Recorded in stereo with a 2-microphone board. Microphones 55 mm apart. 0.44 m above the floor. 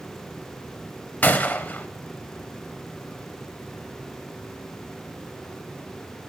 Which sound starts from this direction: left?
A gunshot, at 1.2 s.